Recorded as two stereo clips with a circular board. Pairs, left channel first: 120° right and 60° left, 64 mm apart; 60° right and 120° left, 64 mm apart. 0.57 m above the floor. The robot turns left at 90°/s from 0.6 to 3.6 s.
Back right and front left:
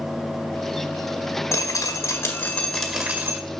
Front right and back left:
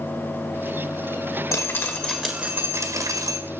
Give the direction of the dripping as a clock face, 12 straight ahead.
3 o'clock.